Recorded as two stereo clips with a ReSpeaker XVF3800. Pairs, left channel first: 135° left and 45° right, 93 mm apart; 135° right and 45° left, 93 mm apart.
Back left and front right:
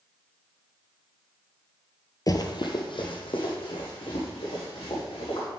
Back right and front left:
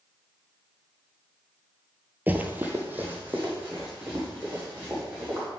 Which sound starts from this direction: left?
Running footsteps, at 2.3 s.